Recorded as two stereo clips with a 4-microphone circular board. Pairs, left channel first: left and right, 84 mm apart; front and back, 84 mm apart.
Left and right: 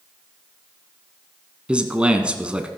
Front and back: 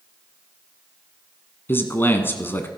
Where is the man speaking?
25° right, 1.3 m.